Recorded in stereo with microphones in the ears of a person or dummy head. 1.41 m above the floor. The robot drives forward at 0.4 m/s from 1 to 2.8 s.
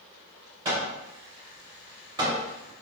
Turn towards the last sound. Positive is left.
turn(degrees=-30)  # may be behind; listen again after turning